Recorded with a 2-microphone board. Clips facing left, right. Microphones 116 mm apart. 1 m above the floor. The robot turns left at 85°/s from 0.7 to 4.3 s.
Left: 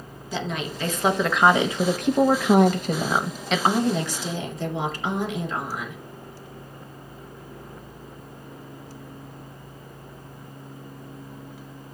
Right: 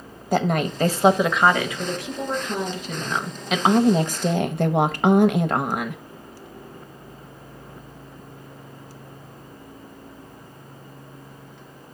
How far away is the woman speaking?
About 0.8 m.